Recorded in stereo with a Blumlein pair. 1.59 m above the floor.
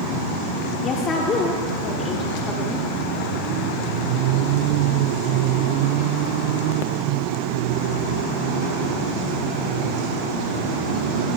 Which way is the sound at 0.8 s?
20° left.